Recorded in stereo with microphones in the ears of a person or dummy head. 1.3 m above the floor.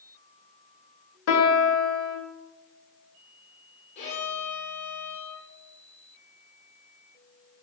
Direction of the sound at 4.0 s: 40° left (ahead or behind).